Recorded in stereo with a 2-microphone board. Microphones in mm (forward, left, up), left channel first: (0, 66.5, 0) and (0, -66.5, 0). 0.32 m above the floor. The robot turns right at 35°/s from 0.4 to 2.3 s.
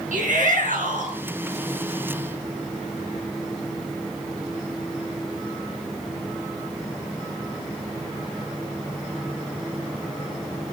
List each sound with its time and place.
0.1 s a shout: 70° right (ahead or behind), 5.5 m